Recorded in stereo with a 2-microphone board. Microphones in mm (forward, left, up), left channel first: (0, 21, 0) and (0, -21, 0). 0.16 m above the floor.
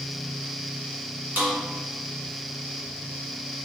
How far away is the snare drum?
About 1.6 m.